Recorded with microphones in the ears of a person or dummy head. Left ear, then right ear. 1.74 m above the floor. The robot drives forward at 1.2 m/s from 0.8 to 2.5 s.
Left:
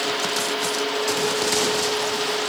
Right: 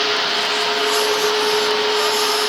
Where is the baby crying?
I don't hear a baby crying.